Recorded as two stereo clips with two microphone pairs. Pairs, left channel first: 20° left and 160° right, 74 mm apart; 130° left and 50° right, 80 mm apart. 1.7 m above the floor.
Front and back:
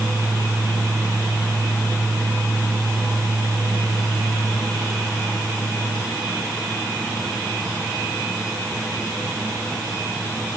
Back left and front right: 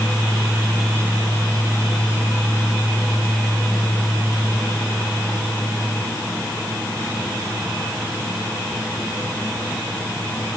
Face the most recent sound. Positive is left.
No sound to turn to.